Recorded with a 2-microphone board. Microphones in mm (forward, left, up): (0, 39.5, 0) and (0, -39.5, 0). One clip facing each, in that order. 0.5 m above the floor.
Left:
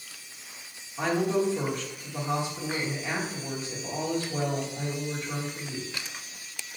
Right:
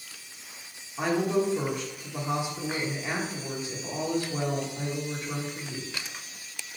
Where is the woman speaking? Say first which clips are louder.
Even; 15° right (ahead or behind), 1.3 m.